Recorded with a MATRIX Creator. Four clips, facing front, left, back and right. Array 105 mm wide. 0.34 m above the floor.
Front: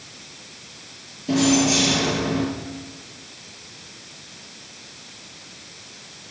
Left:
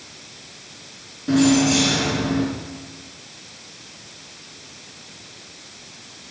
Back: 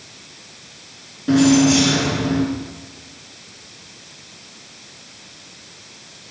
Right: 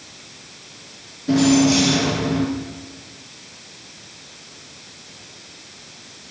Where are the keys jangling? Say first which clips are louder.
Right 1 dB, back 6 dB; 165° left, 3.5 m.